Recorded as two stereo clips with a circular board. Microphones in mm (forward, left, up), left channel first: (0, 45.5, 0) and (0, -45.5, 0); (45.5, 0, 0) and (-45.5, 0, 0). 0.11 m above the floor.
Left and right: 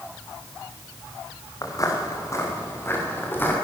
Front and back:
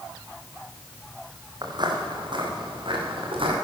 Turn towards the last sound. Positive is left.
turn(degrees=160)